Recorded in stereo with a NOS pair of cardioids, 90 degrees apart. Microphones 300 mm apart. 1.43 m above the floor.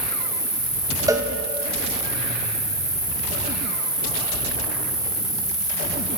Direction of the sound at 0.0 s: 35° right.